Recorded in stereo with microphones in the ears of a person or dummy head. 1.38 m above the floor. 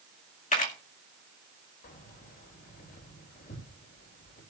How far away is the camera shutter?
About 2 m.